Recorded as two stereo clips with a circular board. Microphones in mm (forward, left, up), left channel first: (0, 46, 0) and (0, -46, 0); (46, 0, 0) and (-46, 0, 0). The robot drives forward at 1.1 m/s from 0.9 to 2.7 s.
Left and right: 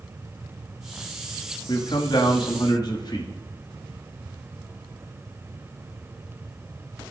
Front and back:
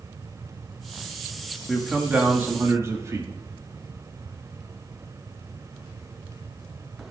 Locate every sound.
1.7 s a man speaking: 90° left, 1.8 m; by 3.3 s 125° left, 2 m